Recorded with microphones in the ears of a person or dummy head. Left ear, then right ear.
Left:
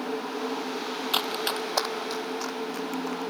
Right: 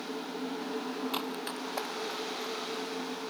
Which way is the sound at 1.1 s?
35° left (ahead or behind).